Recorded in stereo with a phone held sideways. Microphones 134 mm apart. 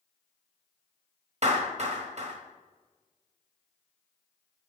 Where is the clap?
55° right (ahead or behind), 1.3 m.